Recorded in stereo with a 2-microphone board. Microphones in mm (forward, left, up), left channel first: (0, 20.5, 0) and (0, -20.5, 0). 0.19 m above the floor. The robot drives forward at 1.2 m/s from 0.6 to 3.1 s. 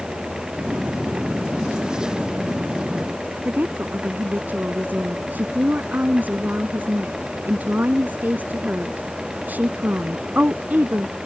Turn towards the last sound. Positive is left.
turn(degrees=-45)  # may be behind; listen again after turning